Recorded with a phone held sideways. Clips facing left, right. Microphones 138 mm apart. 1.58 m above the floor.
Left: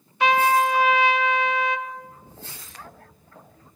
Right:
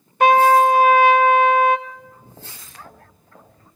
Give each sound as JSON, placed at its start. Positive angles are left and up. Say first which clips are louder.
{"t": 0.2, "sound": "a trumpet", "louder": "right 7 dB", "side_deg": -50, "distance_m": 0.5}
{"t": 1.9, "sound": "footsteps", "louder": "left 2 dB", "side_deg": -50, "distance_m": 3.5}